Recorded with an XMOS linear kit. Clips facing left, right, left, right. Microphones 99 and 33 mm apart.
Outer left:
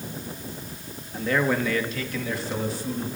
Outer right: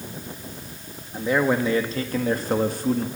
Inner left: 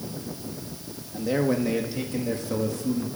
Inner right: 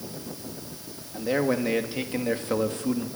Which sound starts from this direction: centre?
A man speaking, at 1.1 s.